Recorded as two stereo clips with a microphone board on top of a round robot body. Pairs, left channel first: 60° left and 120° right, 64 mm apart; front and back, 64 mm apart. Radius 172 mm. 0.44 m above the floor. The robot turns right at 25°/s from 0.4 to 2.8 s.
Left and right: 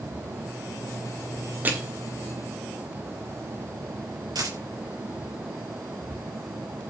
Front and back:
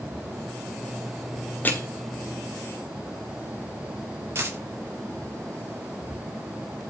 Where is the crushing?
60° right, 4 m.